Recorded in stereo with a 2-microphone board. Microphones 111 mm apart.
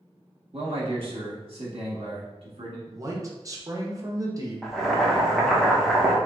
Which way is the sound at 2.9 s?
30° right (ahead or behind).